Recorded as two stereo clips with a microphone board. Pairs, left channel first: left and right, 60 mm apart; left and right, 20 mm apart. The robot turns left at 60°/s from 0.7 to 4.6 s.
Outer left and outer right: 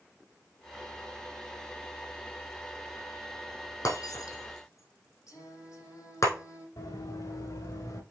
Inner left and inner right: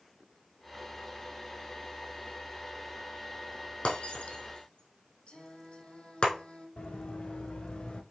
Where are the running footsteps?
85° left, 3 m; by 8.0 s 75° left (ahead or behind), 3.5 m.